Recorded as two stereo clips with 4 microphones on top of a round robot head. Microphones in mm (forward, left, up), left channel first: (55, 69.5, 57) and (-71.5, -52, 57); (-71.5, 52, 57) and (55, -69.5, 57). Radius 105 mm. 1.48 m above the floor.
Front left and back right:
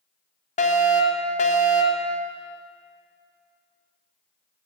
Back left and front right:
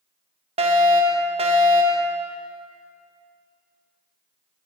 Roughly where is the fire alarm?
Ahead.